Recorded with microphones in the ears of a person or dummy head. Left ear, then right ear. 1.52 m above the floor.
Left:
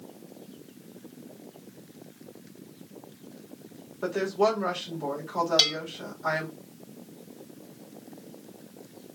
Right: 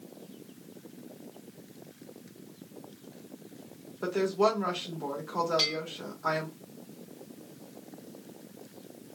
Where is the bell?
25° left (ahead or behind), 1.1 m.